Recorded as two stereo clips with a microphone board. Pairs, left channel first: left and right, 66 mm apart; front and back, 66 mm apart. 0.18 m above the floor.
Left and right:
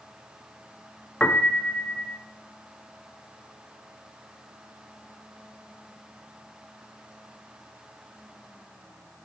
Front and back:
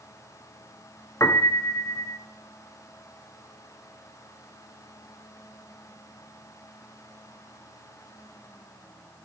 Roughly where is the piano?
Ahead.